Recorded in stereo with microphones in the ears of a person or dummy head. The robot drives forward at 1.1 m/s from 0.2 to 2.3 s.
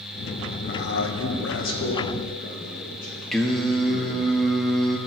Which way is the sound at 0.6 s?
55° left (ahead or behind).